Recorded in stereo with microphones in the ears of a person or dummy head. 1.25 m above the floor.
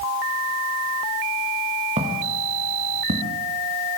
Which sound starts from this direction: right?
Footsteps, at 2.0 s.